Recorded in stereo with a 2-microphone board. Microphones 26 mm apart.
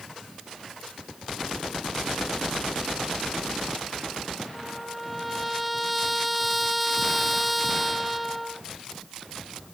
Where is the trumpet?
Centre (ahead or behind).